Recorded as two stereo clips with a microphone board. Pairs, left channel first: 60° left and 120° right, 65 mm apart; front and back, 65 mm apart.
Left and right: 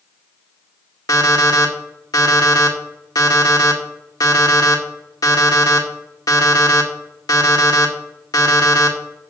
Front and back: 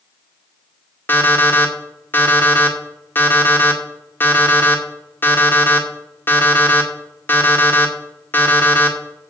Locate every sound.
1.1 s an alarm clock: 55° left, 2 m